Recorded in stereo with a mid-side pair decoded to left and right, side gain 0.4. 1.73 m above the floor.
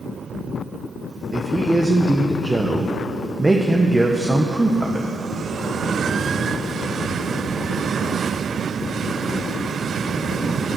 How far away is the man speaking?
About 1.4 m.